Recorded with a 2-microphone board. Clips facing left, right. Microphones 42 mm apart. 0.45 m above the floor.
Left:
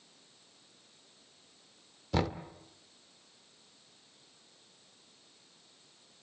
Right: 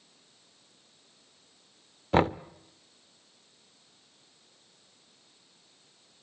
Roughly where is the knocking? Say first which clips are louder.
Right 8 dB; right.